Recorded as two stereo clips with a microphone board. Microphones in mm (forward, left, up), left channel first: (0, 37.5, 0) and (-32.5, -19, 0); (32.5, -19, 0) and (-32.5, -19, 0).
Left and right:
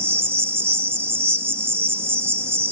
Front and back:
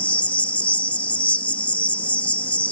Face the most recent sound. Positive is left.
turn(degrees=-70)